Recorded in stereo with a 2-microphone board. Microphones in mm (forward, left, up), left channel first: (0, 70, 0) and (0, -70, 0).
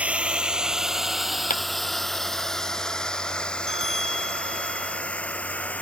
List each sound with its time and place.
0.0 s a drone: 10° right (ahead or behind); by 5.8 s 10° left (ahead or behind)
1.5 s a clap: 85° left
3.7 s a bell: 45° right (ahead or behind)